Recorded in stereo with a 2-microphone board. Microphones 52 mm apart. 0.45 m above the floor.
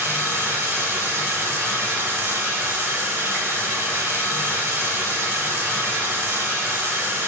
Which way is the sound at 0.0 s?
50° right (ahead or behind).